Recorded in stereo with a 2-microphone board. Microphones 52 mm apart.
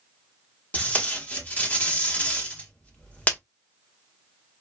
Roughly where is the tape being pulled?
Left.